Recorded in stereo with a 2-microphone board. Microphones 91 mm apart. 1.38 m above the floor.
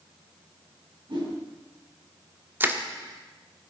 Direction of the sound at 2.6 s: 25° right (ahead or behind).